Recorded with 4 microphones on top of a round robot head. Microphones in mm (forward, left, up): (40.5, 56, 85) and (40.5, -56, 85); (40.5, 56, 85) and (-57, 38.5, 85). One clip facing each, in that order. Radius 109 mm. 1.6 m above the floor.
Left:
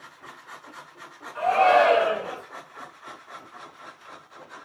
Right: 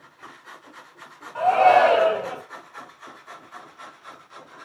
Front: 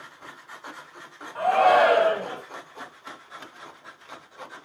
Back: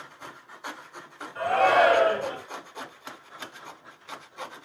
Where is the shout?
45° right, 2 m.